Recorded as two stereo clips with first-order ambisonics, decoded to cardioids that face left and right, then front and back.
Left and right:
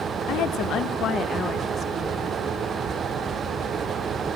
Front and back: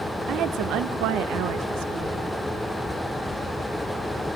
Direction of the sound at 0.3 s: 130° left.